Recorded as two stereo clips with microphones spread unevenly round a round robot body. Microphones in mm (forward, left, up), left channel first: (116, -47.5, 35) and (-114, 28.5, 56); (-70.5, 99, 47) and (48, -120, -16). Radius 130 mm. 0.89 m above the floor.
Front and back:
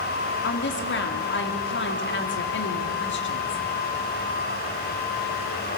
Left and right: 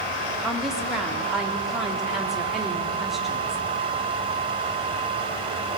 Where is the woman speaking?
25° left, 2 m.